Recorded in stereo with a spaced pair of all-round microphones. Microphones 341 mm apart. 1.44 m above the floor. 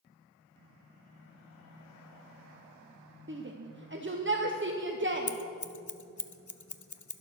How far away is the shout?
About 0.8 m.